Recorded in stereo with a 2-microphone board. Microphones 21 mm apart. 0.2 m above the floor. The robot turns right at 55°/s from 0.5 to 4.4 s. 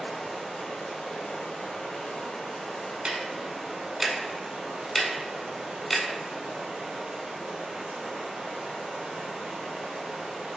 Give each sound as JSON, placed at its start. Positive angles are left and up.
{"t": 0.0, "sound": "running water", "azimuth_deg": 40, "distance_m": 1.6}
{"t": 3.0, "sound": "ticking", "side_deg": -50, "distance_m": 0.6}